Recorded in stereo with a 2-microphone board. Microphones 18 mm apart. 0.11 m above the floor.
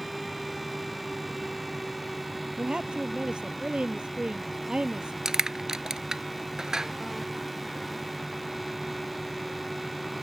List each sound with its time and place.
2.6 s a woman speaking: 65° right (ahead or behind)
5.2 s crushing: 35° right (ahead or behind)